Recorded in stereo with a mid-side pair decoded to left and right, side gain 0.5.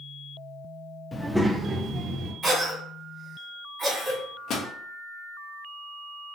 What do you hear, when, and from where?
1.1 s a child speaking: 20° left, 0.6 m; by 2.3 s 55° right, 1.2 m
2.4 s a cough: 40° right, 1.5 m
4.1 s a microwave: 60° left, 0.7 m